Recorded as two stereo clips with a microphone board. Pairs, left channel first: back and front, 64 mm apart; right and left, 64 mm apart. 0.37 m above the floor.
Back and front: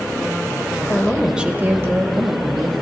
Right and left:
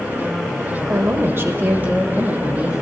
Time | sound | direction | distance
0.9 | a woman speaking | 120° left | 1.2 m